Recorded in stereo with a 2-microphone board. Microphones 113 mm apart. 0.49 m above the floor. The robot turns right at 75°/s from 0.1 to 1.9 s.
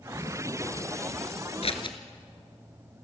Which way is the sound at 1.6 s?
65° left (ahead or behind).